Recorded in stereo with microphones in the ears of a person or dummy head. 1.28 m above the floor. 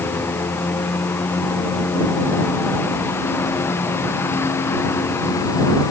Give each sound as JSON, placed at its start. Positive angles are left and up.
{"t": 0.0, "sound": "a lawn mower", "side_deg": 15}